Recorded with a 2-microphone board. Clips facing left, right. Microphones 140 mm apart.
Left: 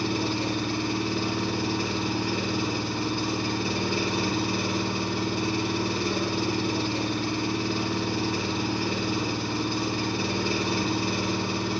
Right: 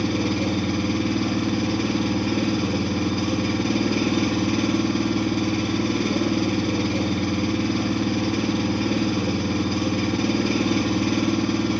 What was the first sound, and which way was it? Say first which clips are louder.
An engine running: right 5 dB; 60° right (ahead or behind).